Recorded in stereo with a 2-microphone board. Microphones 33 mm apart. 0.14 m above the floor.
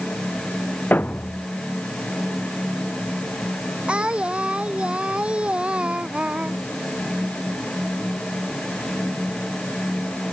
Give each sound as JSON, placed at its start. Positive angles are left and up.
{"t": 0.9, "sound": "a thud", "side_deg": 65}
{"t": 3.9, "sound": "singing", "side_deg": -35}